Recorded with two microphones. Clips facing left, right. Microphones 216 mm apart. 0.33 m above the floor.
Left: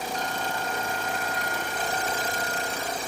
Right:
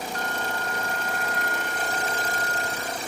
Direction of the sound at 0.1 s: 60° right (ahead or behind).